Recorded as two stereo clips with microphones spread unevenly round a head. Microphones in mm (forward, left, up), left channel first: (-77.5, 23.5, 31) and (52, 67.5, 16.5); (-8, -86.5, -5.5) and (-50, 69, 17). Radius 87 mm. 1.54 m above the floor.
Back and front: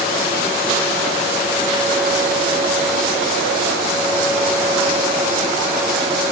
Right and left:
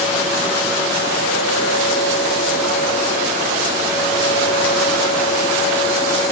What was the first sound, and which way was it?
Only background noise.